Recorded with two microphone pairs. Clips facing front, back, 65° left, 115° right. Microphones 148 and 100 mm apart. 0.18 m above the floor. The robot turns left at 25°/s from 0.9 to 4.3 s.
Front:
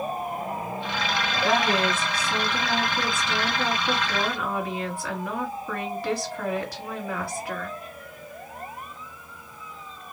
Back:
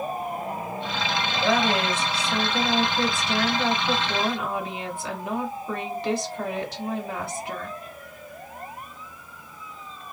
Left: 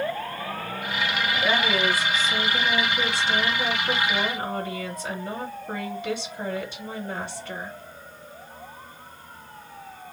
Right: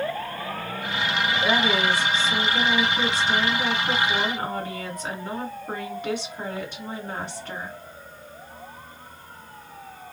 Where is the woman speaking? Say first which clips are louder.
Even, right 1 dB; 45° right, 1.9 m; by 7.8 s 120° right, 1.9 m.